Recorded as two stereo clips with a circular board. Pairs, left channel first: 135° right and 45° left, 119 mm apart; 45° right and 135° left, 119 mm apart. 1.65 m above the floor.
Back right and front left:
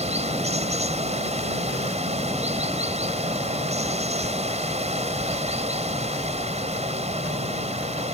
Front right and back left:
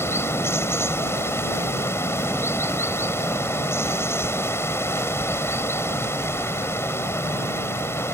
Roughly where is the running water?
Ahead left.